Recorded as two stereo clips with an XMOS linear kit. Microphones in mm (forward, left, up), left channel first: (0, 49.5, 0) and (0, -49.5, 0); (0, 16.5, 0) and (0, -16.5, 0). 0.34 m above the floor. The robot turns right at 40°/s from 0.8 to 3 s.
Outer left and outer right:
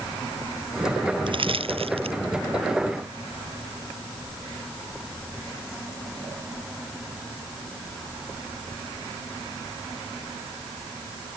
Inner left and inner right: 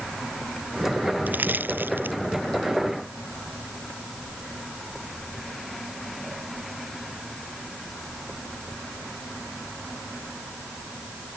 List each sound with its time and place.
1.3 s crushing: 60° right (ahead or behind); by 2.2 s 80° right